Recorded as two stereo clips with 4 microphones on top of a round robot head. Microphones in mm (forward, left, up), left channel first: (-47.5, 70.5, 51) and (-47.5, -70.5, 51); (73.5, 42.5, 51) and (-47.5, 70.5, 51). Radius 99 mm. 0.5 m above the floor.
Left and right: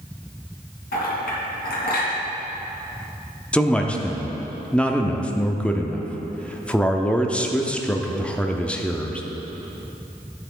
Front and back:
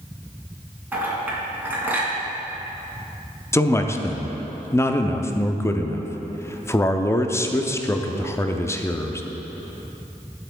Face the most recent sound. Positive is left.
turn(degrees=20)